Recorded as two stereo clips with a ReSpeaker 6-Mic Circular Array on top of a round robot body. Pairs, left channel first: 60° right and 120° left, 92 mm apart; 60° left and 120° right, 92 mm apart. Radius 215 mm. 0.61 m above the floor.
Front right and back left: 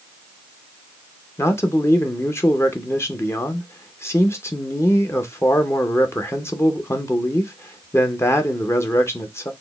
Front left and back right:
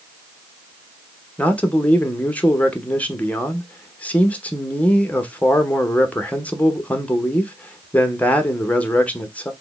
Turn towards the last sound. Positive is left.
turn(degrees=-10)